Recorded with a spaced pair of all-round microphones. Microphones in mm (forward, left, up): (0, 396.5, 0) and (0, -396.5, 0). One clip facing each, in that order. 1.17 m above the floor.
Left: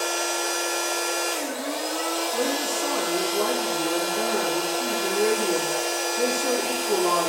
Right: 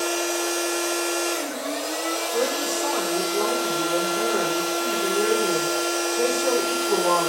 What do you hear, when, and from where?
0.0 s a machine running: 40° right (ahead or behind), 4 m
2.3 s a woman speaking: 85° right, 3 m